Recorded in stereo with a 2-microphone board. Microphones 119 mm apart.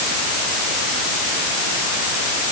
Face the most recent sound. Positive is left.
No sound to turn to.